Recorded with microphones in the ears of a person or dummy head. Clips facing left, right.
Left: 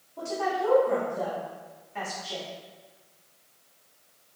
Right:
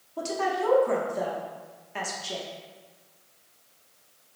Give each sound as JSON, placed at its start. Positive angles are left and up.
{"t": 0.2, "sound": "a woman speaking", "side_deg": -80, "distance_m": 0.9}